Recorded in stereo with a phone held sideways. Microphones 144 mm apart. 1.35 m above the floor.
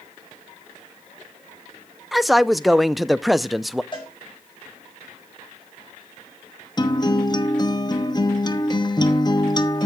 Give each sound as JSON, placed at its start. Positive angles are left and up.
{"t": 2.1, "sound": "a man speaking", "side_deg": 0, "distance_m": 0.5}
{"t": 3.9, "sound": "a cowbell", "side_deg": 35, "distance_m": 6.0}
{"t": 6.8, "sound": "a guitar", "side_deg": 30, "distance_m": 1.0}